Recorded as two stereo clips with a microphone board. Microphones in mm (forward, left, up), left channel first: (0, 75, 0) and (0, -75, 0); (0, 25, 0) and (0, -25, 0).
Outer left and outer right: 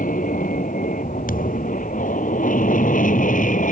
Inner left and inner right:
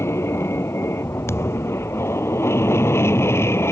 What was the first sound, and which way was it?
An aircraft, 65° left (ahead or behind).